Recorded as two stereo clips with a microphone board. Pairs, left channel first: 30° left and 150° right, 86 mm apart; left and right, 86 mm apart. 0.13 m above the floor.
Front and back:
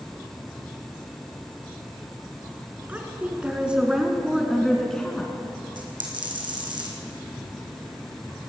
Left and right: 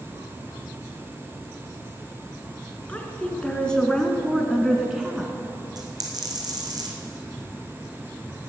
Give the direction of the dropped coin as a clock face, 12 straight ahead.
4 o'clock.